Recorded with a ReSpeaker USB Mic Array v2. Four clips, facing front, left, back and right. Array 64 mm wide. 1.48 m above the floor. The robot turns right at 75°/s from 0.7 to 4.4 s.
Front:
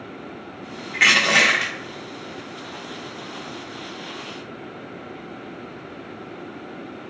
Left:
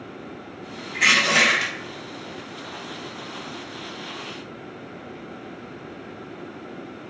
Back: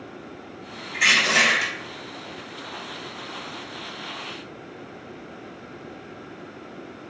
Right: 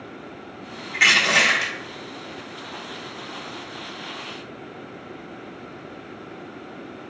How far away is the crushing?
About 1.3 m.